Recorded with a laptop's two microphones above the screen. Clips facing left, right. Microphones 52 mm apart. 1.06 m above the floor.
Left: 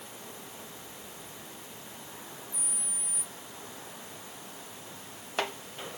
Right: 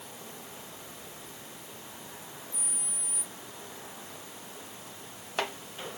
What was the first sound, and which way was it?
Only background noise.